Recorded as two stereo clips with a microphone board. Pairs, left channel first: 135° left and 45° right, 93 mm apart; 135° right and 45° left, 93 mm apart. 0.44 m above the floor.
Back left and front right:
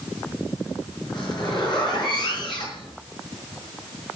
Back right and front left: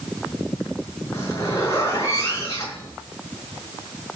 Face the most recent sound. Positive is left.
turn(degrees=170)